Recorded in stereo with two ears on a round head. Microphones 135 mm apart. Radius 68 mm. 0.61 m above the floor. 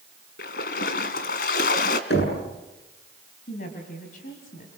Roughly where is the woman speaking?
Left.